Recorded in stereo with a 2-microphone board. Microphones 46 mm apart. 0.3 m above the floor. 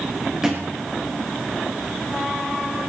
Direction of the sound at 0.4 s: 15° right (ahead or behind).